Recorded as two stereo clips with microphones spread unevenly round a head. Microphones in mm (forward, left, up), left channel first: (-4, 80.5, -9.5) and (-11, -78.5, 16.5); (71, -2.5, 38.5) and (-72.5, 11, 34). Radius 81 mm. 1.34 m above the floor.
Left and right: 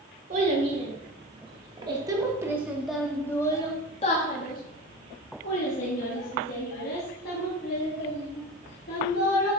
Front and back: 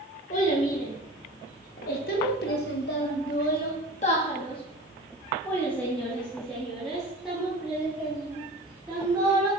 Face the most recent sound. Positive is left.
turn(degrees=95)